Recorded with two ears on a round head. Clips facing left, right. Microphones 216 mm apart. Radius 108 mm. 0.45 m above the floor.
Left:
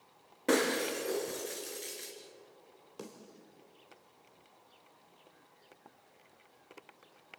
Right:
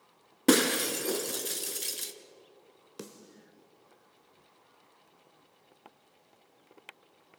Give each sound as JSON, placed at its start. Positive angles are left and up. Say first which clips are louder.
{"t": 0.5, "sound": "breaking glass", "louder": "right 5 dB", "side_deg": -65, "distance_m": 2.0}
{"t": 3.0, "sound": "a snare drum", "louder": "right 2 dB", "side_deg": -30, "distance_m": 1.7}